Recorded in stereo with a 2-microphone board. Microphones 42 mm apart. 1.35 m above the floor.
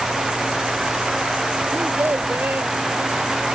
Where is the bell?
No bell in this recording.